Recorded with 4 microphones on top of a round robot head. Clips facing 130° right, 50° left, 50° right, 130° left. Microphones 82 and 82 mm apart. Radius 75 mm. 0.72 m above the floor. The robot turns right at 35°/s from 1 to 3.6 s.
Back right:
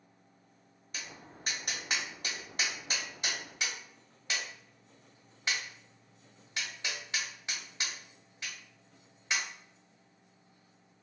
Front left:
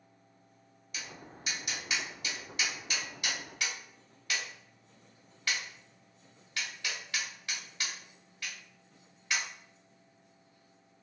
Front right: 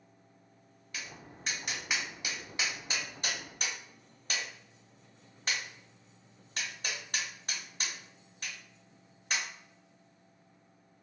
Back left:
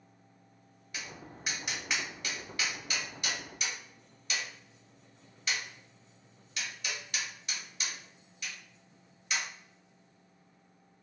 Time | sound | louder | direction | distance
0.9 | tapping | front left 1 dB, back left 1 dB | 165° right | 1.5 m